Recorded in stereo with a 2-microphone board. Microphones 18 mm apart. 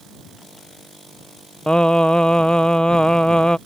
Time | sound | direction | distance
1.7 | singing | 55° left (ahead or behind) | ?